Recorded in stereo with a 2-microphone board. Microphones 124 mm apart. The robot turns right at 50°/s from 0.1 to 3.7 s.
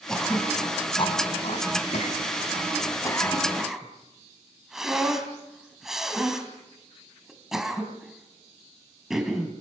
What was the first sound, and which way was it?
Throat clearing, 5° left (ahead or behind).